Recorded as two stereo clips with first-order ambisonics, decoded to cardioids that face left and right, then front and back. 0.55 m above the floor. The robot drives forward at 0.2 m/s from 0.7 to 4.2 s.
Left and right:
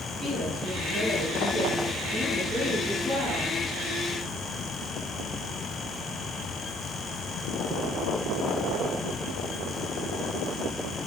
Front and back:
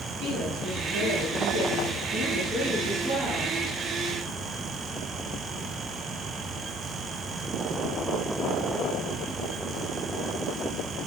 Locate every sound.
0.2 s a woman speaking: 175° left, 5 m